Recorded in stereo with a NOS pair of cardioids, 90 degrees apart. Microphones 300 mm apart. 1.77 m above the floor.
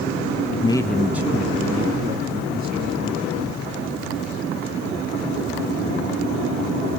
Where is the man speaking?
25° left, 0.7 m; by 3.4 s 35° right, 2.5 m.